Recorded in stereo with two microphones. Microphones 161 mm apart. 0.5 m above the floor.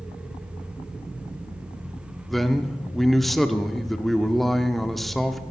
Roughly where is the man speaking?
Centre.